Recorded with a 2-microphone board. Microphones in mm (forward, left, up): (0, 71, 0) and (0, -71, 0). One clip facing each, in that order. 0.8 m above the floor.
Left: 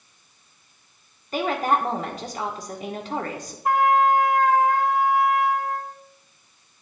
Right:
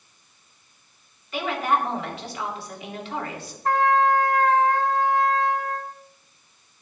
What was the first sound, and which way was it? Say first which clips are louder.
A woman speaking: left 2 dB; 40° left (ahead or behind).